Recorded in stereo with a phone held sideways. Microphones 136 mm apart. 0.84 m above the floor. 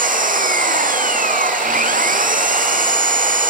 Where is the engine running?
85° right.